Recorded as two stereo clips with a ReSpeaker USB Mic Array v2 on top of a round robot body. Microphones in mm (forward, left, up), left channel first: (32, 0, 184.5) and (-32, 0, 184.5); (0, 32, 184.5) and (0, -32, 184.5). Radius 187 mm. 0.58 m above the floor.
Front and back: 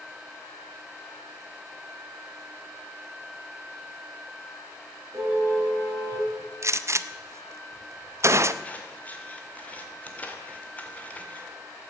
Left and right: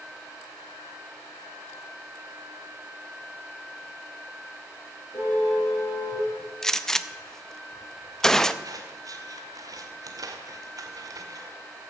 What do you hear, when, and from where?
5.1 s a car horn: 130° left, 8 m
6.6 s a gunshot: 170° left, 0.9 m
8.6 s scissors: 70° right, 2 m